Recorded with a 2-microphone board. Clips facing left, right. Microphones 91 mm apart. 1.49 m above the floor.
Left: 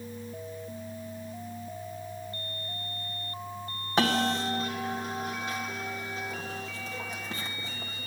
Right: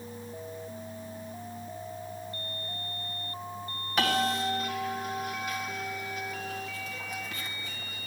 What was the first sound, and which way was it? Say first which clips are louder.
A bell: left 1 dB; 30° left (ahead or behind).